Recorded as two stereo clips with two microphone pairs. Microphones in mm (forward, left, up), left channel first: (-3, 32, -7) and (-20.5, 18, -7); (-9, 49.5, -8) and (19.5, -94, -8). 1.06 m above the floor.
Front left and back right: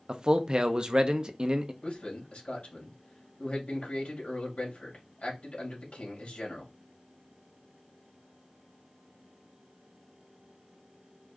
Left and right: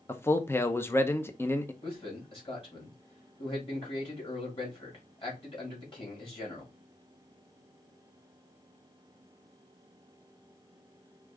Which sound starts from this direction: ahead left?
A man speaking, at 1.8 s.